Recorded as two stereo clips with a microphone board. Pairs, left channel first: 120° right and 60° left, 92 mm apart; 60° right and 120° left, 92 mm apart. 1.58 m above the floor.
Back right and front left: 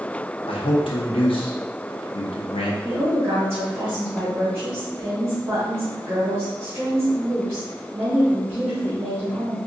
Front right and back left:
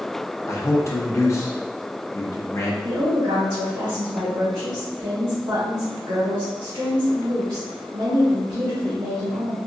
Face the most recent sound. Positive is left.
turn(degrees=120)